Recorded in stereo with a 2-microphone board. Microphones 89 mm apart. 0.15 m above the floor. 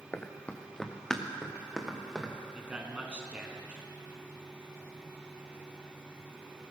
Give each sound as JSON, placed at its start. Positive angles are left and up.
{"t": 0.1, "sound": "running footsteps", "side_deg": 20, "distance_m": 1.2}
{"t": 2.5, "sound": "a man speaking", "side_deg": -15, "distance_m": 1.4}